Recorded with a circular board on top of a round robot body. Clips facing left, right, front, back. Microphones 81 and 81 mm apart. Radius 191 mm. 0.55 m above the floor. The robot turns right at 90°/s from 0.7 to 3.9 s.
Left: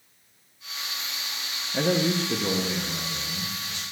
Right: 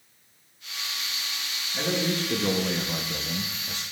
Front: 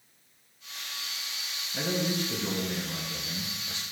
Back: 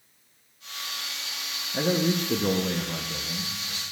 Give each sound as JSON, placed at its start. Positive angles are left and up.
{"t": 1.7, "sound": "a man speaking", "azimuth_deg": 120, "distance_m": 0.8}